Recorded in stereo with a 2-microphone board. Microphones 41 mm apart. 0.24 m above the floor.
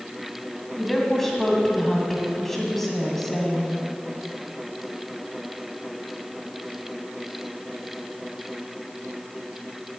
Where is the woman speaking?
5° left (ahead or behind), 2.0 m.